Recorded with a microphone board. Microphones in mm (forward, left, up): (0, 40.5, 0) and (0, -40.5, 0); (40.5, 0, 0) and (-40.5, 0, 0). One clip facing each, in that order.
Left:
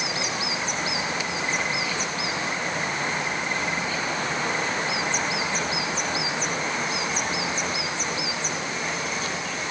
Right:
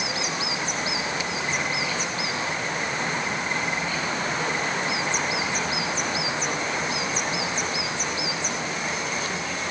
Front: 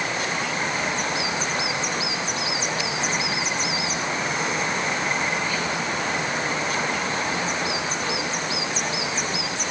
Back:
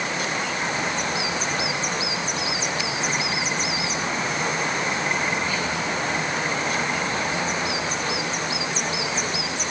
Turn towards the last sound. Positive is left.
No sound to turn to.